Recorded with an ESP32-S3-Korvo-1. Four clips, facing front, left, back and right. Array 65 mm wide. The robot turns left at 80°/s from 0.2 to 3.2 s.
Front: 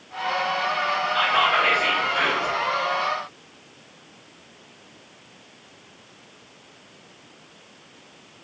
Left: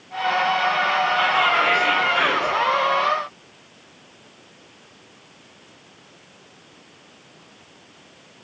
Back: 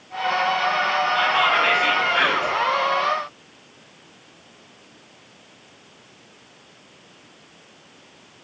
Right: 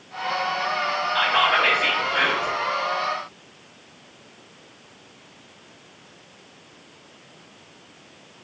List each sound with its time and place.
1.1 s whispering: 70° right, 0.8 m; by 2.5 s 175° left, 0.8 m